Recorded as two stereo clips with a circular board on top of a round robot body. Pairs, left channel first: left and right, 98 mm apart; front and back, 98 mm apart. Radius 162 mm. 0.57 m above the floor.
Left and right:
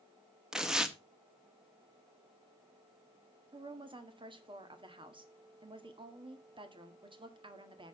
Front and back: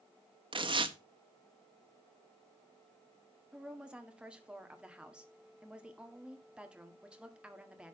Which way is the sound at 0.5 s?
175° right.